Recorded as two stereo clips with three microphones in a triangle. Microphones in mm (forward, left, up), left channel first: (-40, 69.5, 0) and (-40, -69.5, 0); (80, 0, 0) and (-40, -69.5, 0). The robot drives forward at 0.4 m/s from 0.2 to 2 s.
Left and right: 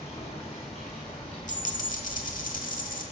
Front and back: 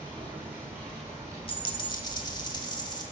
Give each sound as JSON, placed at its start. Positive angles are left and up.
{"t": 0.0, "sound": "running water", "azimuth_deg": 130, "distance_m": 3.0}
{"t": 1.5, "sound": "a dropped coin", "azimuth_deg": 75, "distance_m": 1.1}